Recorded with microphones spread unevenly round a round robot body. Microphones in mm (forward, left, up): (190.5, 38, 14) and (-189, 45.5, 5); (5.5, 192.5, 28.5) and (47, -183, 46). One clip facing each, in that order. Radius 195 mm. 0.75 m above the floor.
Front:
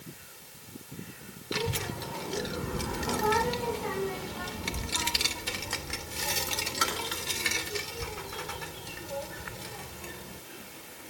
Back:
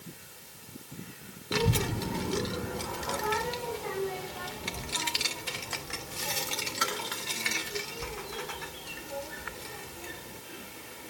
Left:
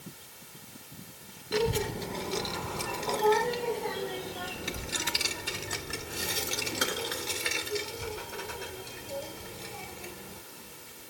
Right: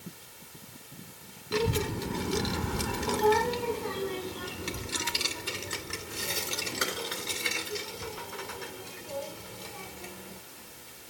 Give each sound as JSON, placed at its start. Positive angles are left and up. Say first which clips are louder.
{"t": 1.5, "sound": "a child speaking", "louder": "back 5 dB, even", "azimuth_deg": -160, "distance_m": 0.8}